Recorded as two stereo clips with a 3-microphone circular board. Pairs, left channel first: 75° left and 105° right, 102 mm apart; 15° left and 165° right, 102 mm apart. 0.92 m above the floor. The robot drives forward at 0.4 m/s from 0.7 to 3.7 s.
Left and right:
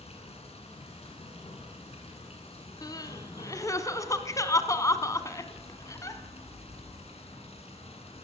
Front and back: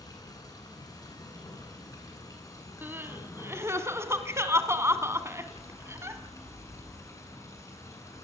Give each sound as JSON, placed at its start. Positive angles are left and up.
{"t": 0.0, "sound": "running water", "azimuth_deg": 65, "distance_m": 10.0}
{"t": 2.8, "sound": "crying", "azimuth_deg": 125, "distance_m": 2.0}